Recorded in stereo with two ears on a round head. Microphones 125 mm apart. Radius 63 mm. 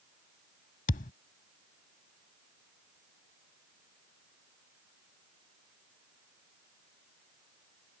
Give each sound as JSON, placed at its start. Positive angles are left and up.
{"t": 0.9, "sound": "a thud", "side_deg": 60}